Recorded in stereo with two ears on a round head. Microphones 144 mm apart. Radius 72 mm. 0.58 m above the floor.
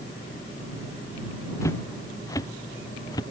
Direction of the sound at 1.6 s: 20° left (ahead or behind).